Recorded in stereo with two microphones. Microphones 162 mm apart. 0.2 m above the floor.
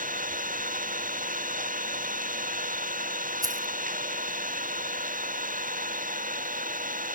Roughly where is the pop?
No pop in this recording.